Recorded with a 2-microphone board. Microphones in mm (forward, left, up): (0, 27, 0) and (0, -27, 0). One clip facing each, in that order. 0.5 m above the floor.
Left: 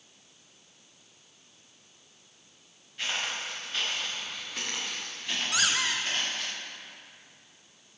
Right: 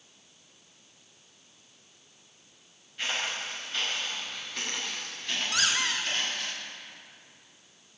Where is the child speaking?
No child speaking in this recording.